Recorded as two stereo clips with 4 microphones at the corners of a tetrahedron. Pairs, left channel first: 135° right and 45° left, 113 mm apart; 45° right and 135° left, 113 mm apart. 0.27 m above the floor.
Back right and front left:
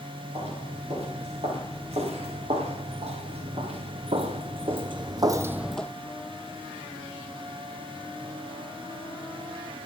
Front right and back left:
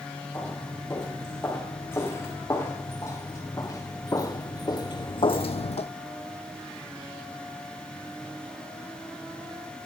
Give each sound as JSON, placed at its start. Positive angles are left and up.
{"t": 0.3, "sound": "footsteps", "azimuth_deg": 25, "distance_m": 5.0}